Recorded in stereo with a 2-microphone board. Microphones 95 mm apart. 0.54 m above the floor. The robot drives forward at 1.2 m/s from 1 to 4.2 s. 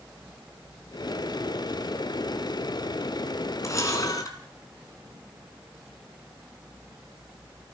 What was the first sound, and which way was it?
A camera shutter, 35° left (ahead or behind).